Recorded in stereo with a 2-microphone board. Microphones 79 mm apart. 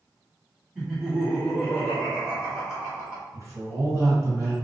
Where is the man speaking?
35° right (ahead or behind), 1.5 m.